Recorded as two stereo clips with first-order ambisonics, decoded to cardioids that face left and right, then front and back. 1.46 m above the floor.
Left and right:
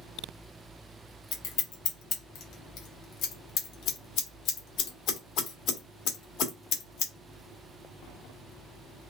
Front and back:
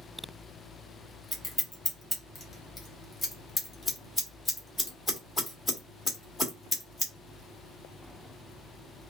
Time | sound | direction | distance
1.3 | scissors | 70° left | 1.2 m